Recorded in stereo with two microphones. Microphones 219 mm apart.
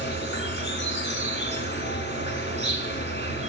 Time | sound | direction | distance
0.0 | an insect | 55° left (ahead or behind) | 1.6 m